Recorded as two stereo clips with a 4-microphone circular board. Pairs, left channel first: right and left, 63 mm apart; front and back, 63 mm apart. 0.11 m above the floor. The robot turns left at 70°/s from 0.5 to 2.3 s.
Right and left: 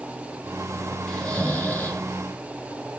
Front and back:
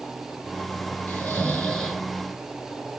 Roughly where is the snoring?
Ahead right.